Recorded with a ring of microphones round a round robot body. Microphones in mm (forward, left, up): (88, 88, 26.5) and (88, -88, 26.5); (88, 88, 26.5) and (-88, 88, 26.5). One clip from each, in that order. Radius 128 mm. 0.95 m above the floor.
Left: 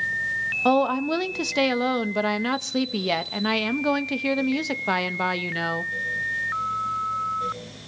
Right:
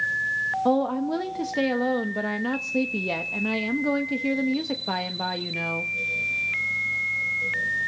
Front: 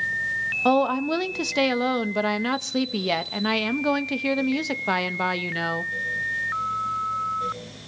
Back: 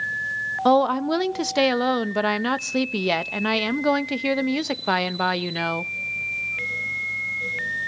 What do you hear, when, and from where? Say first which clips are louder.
0.7 s a woman speaking: left 6 dB, back 4 dB; 120° left, 0.8 m